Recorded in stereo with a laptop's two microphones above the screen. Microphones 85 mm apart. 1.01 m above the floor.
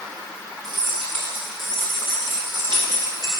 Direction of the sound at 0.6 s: 75° right (ahead or behind).